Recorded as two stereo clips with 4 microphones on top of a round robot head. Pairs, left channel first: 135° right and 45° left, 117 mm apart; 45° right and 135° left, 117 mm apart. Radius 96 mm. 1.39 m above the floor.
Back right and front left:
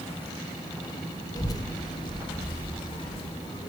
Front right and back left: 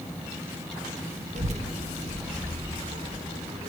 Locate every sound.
1.4 s a child speaking: 160° left, 1.0 m; by 3.7 s 175° left, 3 m